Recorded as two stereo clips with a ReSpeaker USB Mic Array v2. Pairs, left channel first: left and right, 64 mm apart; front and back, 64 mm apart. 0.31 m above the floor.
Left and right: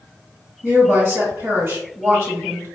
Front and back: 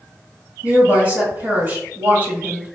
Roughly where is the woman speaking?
Behind right.